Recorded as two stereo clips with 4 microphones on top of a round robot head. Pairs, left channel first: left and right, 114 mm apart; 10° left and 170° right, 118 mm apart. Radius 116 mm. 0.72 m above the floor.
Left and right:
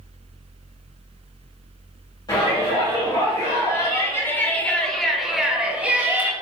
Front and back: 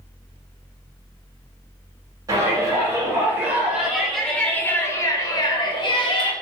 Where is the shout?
135° left, 1.8 m; by 6.3 s 20° right, 1.6 m.